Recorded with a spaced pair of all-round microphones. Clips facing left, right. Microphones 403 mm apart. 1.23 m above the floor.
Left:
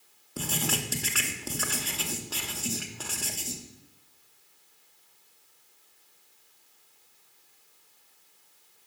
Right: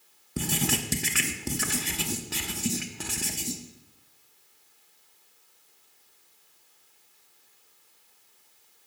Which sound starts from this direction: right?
Writing, at 0.4 s.